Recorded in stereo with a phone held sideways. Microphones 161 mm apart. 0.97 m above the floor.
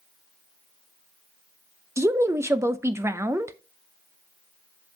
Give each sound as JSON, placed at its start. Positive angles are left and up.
{"t": 2.0, "sound": "a woman speaking", "side_deg": -15, "distance_m": 0.6}